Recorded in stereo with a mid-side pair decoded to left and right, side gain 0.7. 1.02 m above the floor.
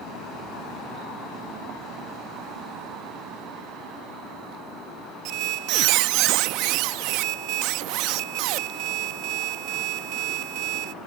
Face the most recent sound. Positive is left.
turn(degrees=-65)